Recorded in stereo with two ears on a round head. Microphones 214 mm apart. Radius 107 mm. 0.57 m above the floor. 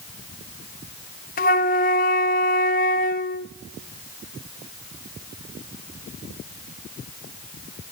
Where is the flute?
35° left (ahead or behind), 0.9 m.